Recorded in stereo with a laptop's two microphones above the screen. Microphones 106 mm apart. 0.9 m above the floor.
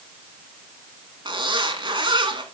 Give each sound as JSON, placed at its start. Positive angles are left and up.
{"t": 1.2, "sound": "a zipper", "side_deg": -45, "distance_m": 2.0}